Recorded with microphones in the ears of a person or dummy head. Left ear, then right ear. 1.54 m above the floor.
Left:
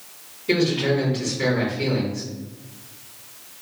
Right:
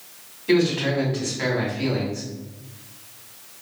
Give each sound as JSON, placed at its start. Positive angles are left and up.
{"t": 0.5, "sound": "a man speaking", "side_deg": -45, "distance_m": 1.8}